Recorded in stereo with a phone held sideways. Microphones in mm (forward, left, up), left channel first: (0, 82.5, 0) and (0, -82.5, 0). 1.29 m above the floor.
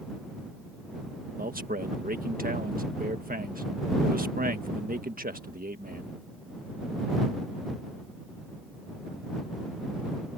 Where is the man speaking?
60° right (ahead or behind).